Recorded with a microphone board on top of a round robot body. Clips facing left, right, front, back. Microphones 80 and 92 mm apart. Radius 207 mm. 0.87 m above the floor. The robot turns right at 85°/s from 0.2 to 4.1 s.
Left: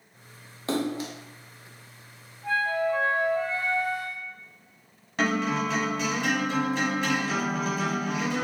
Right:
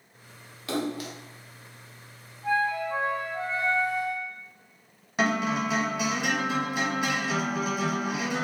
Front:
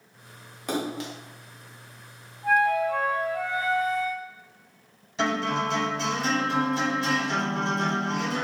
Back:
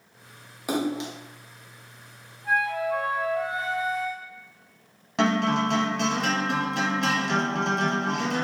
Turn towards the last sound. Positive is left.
turn(degrees=-170)